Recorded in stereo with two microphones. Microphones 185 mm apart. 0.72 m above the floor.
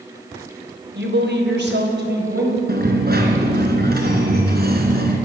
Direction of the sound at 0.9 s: 75° right (ahead or behind).